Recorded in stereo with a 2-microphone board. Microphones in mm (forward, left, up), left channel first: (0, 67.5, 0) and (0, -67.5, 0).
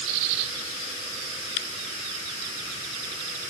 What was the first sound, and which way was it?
Only background noise.